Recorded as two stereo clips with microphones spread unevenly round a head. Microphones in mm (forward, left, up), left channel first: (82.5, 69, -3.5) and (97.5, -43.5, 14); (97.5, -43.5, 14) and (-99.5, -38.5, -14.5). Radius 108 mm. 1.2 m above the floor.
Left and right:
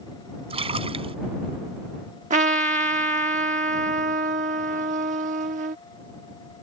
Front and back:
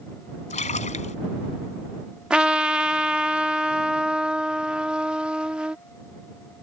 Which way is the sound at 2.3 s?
95° right.